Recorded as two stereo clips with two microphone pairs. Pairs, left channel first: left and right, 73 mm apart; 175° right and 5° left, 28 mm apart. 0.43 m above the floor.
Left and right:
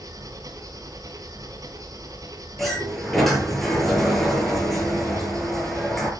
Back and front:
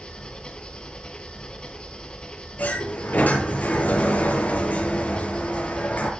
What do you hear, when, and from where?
0.0 s an engine running: 125° right, 3.5 m
2.6 s a sliding door: straight behind, 7 m